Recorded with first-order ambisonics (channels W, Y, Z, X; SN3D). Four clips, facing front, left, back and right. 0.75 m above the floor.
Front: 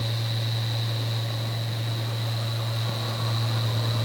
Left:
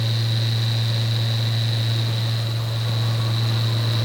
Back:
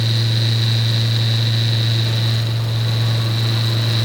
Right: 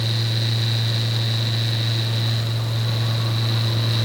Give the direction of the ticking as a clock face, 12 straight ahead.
No ticking in this recording.